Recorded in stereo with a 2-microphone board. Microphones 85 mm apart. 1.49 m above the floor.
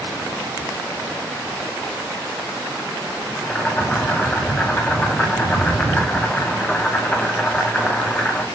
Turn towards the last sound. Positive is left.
turn(degrees=15)  # may be behind; listen again after turning